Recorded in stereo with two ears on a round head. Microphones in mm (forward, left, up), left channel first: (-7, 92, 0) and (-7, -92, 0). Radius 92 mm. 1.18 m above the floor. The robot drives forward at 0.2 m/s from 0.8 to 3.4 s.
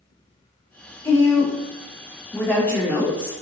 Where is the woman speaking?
15° left (ahead or behind), 0.8 m; by 3.3 s 10° left (ahead or behind), 1.2 m.